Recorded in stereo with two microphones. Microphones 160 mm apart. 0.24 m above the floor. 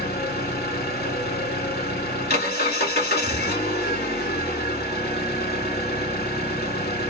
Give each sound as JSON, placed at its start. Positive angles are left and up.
{"t": 0.0, "sound": "an engine running", "side_deg": 70, "distance_m": 0.9}